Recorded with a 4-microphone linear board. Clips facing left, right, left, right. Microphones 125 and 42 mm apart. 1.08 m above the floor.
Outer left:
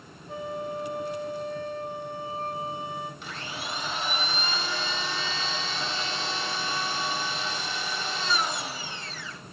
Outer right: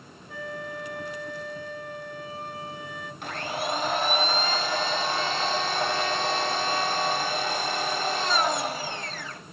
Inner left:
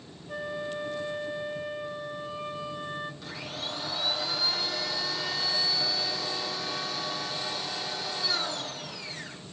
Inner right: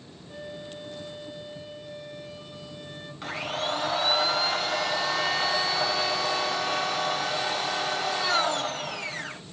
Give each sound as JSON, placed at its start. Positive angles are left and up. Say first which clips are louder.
{"t": 0.3, "sound": "a flute", "louder": "outer left 3 dB, inner left 6 dB", "side_deg": 25, "distance_m": 5.5}
{"t": 3.2, "sound": "a blender", "louder": "outer right 7 dB, inner right 7 dB", "side_deg": -55, "distance_m": 1.7}